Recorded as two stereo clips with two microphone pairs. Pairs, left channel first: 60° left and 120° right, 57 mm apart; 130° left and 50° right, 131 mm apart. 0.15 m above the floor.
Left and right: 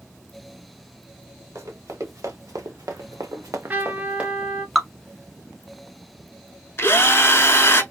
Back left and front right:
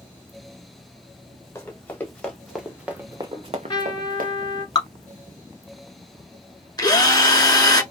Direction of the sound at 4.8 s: 150° left.